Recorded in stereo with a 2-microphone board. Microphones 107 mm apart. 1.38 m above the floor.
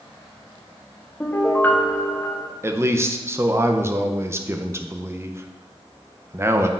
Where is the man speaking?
25° right (ahead or behind), 0.6 m.